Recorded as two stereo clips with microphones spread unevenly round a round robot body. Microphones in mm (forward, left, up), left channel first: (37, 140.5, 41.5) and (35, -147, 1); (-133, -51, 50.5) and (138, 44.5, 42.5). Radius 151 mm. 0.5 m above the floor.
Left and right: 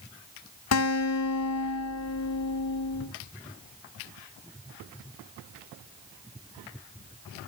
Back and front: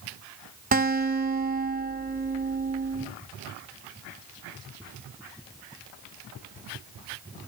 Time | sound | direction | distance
0.7 | a guitar | 70° left | 1.8 m